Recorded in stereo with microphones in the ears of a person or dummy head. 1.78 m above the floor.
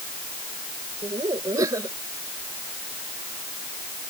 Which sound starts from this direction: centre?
Laughter, at 1.0 s.